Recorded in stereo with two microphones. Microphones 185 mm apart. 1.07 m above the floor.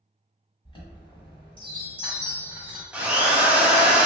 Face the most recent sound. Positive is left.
turn(degrees=-5)  # may be behind; listen again after turning